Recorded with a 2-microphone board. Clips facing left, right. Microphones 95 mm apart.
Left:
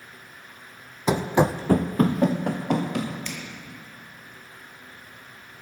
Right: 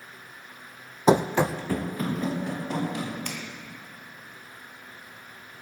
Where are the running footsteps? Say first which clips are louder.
Right 1 dB; 30° right (ahead or behind), 0.6 m; by 3.1 s 70° left (ahead or behind), 3 m.